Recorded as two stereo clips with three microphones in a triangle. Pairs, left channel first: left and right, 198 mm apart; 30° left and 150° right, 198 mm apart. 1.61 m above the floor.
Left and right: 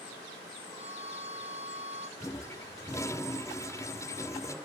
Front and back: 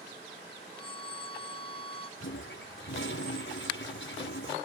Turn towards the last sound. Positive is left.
turn(degrees=15)